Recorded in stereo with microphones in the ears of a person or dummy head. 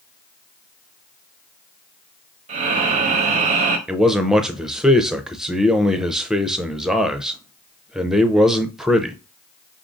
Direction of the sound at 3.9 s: 5° right (ahead or behind).